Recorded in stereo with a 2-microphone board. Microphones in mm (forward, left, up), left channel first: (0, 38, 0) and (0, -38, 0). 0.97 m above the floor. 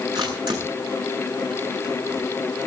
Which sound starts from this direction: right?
A camera shutter, at 0.1 s.